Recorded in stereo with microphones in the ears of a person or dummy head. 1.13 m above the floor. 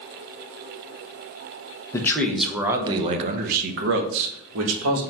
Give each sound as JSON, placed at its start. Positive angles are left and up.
{"t": 1.9, "sound": "a man speaking", "side_deg": 10, "distance_m": 0.9}